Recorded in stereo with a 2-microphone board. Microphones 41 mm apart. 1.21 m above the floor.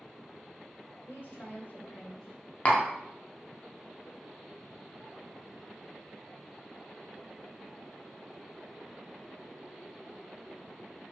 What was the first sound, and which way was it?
A woman speaking, 50° left (ahead or behind).